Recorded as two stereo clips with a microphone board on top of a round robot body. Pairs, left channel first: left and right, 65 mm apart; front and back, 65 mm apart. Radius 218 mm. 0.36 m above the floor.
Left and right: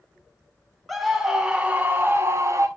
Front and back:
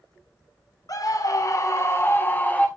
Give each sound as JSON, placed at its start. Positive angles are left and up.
{"t": 0.9, "sound": "a scream", "azimuth_deg": 0, "distance_m": 2.5}